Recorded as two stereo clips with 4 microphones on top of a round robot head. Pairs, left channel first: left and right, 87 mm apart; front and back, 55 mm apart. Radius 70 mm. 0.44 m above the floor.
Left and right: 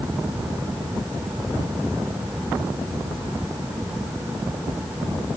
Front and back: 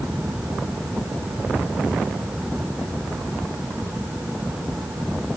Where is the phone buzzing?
I don't hear a phone buzzing.